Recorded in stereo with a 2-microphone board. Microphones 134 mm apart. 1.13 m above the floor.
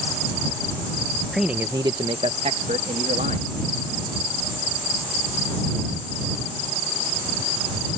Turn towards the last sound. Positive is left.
turn(degrees=-75)  # may be behind; listen again after turning